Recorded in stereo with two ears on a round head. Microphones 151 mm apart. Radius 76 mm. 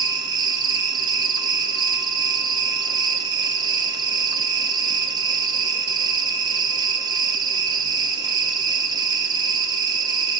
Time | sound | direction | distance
0.0 | an insect | 25° right (ahead or behind) | 0.7 m